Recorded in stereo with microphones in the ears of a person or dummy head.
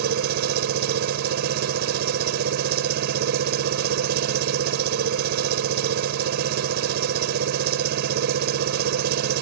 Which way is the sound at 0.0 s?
65° right (ahead or behind).